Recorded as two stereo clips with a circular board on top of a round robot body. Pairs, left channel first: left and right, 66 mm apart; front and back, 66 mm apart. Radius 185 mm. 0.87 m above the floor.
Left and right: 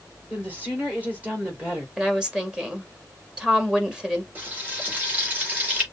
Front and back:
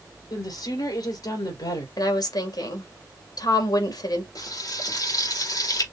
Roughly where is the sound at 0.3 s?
Ahead right.